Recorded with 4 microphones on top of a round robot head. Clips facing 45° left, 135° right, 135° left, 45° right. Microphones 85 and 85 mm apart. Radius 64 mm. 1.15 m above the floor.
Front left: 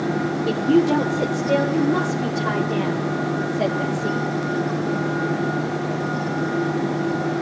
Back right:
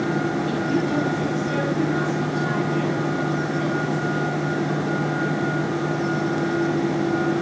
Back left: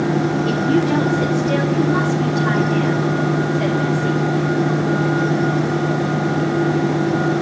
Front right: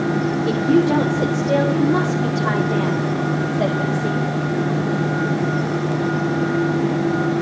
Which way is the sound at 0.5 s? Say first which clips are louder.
Front left 5 dB, front right 4 dB; 25° left.